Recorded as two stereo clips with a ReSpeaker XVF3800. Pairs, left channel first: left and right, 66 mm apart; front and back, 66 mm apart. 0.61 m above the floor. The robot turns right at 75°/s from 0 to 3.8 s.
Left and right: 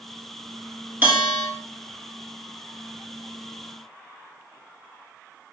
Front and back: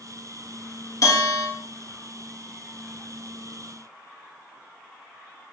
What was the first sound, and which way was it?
A bell, 30° right.